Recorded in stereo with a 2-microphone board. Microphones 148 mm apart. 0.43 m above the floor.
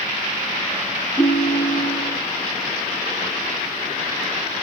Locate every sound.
1.2 s a ringtone: 10° left (ahead or behind), 6 m